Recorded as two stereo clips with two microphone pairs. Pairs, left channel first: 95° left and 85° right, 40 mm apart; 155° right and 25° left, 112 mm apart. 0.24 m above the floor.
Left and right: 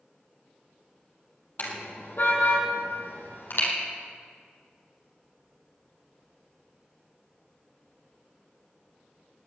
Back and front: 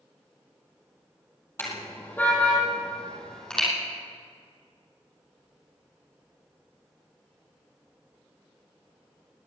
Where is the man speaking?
No man speaking in this recording.